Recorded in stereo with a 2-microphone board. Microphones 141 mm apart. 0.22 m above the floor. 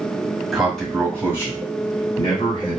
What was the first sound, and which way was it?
A man speaking, centre (ahead or behind).